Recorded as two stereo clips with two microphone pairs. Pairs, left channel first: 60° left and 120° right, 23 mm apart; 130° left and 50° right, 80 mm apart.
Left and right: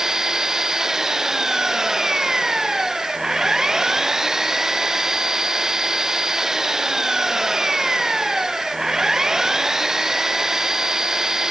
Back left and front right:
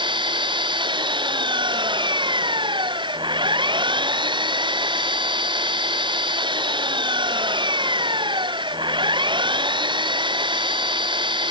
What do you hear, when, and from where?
0.0 s an engine running: 50° right